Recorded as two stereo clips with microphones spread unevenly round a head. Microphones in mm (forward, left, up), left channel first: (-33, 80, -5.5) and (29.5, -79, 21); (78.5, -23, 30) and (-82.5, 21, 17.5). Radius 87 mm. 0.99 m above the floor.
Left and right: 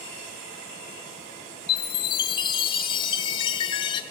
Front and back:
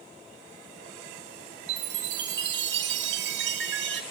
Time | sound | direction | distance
1.7 | a chime | straight behind | 0.9 m